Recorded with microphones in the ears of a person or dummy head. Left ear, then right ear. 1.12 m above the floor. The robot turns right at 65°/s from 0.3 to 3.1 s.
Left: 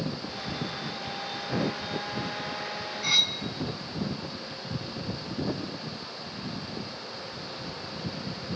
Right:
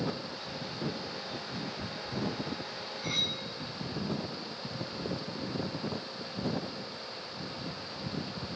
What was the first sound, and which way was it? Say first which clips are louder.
Cutlery clinking: left 8 dB; 20° left (ahead or behind).